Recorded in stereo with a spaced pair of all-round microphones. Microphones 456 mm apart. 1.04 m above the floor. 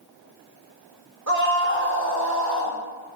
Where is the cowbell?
No cowbell in this recording.